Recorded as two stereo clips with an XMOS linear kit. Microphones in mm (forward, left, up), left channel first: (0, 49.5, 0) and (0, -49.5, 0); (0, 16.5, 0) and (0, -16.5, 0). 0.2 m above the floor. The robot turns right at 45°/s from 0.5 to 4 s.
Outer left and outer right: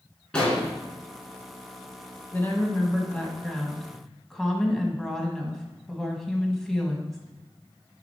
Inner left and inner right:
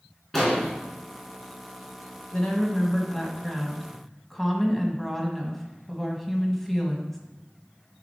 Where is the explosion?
10° left (ahead or behind), 2.5 m; by 0.7 s 15° left (ahead or behind), 2.5 m.